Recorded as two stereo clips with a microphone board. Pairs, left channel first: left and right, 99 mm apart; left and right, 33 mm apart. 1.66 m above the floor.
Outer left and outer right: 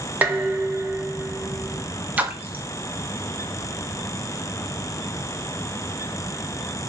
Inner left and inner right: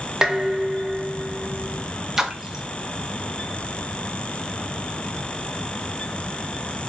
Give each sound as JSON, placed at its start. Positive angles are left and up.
{"t": 0.2, "sound": "dishes clattering", "side_deg": -20, "distance_m": 0.7}
{"t": 2.2, "sound": "a splash", "side_deg": -15, "distance_m": 0.5}